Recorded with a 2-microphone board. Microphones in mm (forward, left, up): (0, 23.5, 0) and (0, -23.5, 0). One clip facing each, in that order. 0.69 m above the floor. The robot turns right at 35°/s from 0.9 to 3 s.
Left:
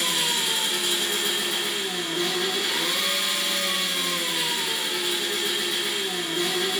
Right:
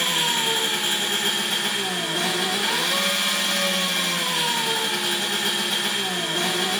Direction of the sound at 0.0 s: 140° right.